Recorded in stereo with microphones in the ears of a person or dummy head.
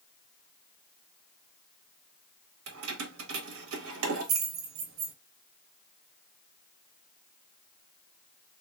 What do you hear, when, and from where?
2.7 s keys jangling: 80° right, 1.0 m